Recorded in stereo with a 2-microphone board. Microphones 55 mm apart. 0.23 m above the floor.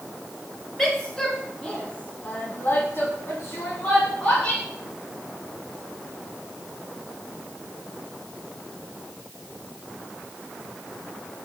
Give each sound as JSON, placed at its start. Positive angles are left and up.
{"t": 0.8, "sound": "a woman speaking", "side_deg": 10, "distance_m": 2.5}